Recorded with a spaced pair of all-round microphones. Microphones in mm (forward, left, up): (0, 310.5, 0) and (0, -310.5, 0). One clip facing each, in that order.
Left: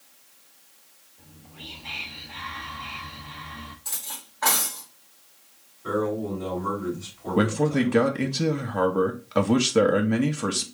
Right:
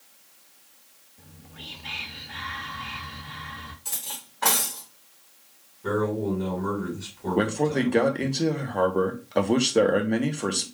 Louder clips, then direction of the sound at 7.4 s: Left 2 dB; 35° left (ahead or behind).